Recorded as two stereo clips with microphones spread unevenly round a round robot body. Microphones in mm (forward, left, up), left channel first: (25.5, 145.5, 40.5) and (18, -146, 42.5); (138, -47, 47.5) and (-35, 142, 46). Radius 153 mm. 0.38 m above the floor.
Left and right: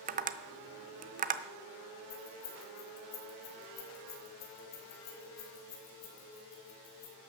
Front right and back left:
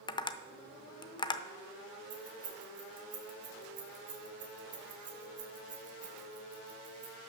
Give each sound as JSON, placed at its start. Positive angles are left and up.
{"t": 0.1, "sound": "tapping", "azimuth_deg": -95, "distance_m": 0.6}
{"t": 2.1, "sound": "keys jangling", "azimuth_deg": 90, "distance_m": 2.5}